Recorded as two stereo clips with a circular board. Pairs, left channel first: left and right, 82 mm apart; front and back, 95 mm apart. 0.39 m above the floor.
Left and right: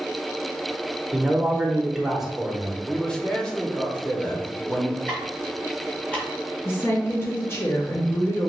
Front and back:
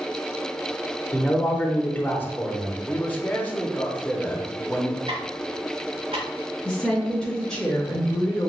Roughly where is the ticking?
Behind.